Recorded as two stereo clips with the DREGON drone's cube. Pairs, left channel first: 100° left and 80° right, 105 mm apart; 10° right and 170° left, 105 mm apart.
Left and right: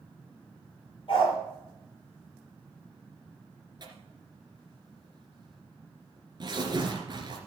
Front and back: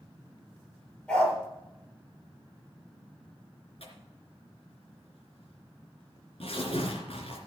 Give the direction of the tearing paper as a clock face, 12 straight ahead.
1 o'clock.